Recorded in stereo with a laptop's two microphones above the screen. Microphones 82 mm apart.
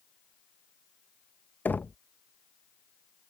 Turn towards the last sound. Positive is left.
turn(degrees=20)  # may be behind; listen again after turning